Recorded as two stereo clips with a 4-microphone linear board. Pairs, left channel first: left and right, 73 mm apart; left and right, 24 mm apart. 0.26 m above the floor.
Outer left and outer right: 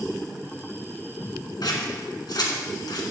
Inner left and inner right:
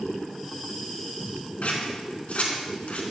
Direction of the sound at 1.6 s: 70° left (ahead or behind).